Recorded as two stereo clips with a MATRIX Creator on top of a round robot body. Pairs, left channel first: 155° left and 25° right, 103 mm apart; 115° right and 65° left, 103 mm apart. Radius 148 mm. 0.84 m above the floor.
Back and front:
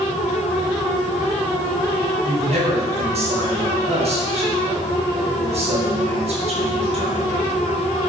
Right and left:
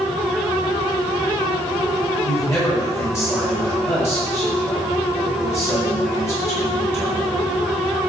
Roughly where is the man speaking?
Ahead right.